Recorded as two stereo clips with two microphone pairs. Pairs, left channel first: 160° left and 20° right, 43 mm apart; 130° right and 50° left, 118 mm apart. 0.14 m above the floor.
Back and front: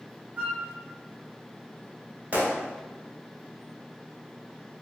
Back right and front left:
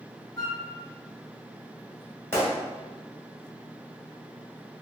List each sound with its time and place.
0.4 s a flute: 80° right, 0.6 m
2.3 s a gunshot: 65° right, 1.2 m